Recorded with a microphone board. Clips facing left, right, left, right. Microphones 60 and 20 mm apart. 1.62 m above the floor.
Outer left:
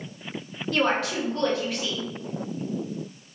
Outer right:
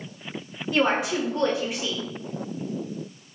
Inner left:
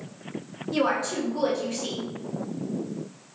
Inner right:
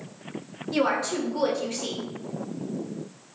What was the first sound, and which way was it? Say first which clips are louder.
A woman speaking: outer right 1 dB, even; 15° right (ahead or behind).